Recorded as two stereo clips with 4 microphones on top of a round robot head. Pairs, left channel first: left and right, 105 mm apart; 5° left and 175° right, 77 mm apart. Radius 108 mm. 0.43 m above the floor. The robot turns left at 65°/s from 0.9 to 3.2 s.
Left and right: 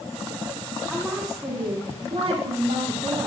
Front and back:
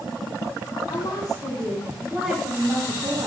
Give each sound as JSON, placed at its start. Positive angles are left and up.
{"t": 0.9, "sound": "a woman speaking", "azimuth_deg": 10, "distance_m": 1.7}